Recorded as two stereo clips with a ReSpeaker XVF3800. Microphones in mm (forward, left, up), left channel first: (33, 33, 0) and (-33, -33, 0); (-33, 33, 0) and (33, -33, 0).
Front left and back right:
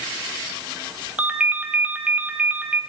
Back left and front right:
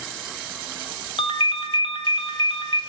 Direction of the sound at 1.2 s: 150° left.